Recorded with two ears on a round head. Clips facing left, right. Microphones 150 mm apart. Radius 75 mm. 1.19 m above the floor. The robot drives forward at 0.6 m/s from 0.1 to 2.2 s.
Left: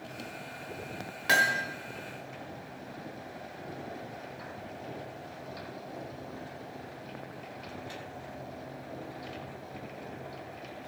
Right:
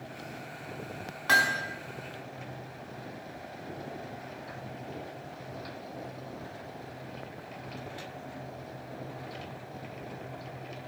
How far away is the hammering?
About 1.0 m.